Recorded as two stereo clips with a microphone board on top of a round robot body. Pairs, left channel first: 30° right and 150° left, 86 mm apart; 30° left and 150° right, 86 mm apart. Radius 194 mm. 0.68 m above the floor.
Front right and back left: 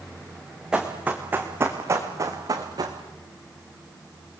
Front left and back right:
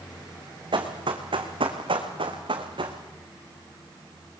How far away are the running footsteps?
About 2.5 m.